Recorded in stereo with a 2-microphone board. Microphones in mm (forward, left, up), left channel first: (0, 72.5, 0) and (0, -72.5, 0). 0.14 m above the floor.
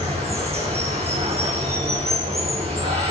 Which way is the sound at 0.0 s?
50° right (ahead or behind).